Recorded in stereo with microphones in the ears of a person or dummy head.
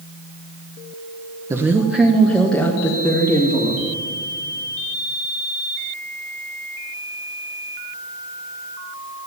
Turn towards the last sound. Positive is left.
turn(degrees=20)  # may be behind; listen again after turning